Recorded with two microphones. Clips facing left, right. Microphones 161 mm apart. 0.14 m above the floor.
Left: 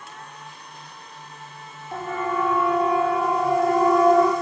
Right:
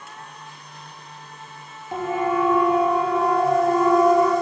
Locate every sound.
1.9 s a siren: 20° right (ahead or behind), 3.5 m; by 4.3 s 25° left (ahead or behind), 5 m